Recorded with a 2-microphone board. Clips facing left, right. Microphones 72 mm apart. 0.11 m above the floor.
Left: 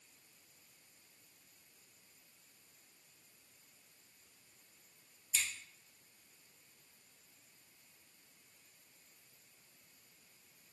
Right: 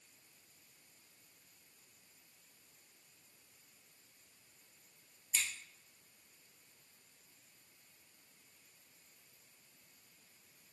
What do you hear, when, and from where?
5.3 s scissors: 45° right (ahead or behind), 1.5 m